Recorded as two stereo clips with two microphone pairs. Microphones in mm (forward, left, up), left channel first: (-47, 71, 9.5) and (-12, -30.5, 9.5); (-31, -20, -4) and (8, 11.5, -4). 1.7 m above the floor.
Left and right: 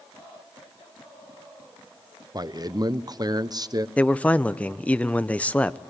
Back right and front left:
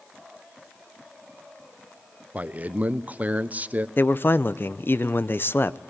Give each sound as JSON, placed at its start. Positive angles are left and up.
{"t": 2.3, "sound": "a man speaking", "azimuth_deg": -20, "distance_m": 1.1}
{"t": 4.0, "sound": "a man speaking", "azimuth_deg": -175, "distance_m": 0.9}